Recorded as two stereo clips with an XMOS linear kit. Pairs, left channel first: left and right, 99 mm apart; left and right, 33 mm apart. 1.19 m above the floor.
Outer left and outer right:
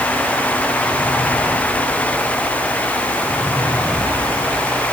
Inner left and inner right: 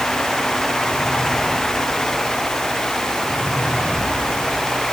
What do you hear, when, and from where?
Only background noise.